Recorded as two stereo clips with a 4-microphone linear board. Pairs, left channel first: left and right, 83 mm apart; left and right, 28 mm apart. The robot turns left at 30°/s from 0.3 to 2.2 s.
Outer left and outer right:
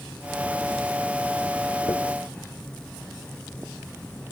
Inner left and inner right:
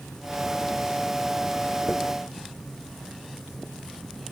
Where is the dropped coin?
45° left (ahead or behind), 1.7 m; by 2.0 s 40° left (ahead or behind), 1.7 m.